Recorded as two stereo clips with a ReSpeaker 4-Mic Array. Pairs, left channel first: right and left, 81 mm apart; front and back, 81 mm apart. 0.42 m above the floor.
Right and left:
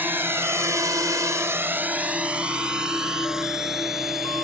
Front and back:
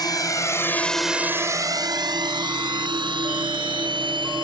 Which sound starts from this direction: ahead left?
A drone, at 0.0 s.